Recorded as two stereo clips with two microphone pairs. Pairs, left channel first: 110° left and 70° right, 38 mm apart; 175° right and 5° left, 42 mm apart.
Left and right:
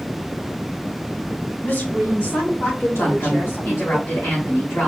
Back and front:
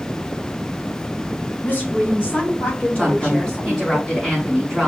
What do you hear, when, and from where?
1.6 s a woman speaking: 145° left, 3.5 m; by 4.0 s 110° left, 3 m
3.0 s a woman speaking: 100° left, 2.5 m